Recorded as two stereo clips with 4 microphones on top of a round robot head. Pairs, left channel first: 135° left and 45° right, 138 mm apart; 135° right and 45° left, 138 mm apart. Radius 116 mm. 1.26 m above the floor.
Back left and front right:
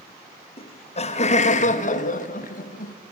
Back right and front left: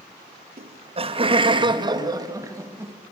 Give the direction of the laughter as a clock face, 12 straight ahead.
9 o'clock.